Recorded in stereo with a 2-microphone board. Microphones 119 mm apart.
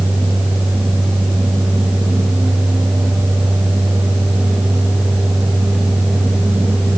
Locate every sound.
Only background noise.